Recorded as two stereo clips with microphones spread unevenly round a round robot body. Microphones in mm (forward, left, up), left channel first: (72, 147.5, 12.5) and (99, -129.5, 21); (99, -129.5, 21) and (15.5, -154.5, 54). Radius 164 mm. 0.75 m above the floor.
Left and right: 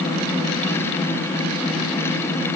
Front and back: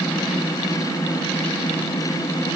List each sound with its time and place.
Only background noise.